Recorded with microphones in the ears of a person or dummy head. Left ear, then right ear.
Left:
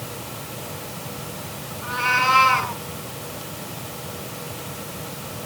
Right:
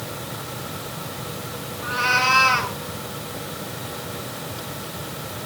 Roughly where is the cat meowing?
Centre.